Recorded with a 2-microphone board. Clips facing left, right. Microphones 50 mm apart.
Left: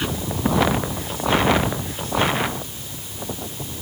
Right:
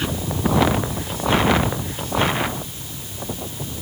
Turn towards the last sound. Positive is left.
No sound to turn to.